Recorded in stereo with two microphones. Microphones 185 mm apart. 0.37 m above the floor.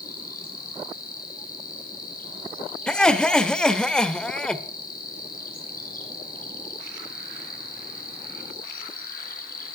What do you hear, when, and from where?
0.0 s an insect: 50° left (ahead or behind), 2.5 m
2.9 s laughter: 5° left (ahead or behind), 1.1 m